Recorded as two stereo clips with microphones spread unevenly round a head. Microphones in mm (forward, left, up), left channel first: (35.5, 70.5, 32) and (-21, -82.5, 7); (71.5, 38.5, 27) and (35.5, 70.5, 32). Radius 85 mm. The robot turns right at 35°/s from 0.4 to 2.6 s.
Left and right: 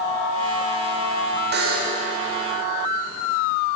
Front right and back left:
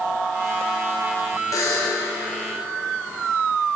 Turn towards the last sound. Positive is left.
turn(degrees=-45)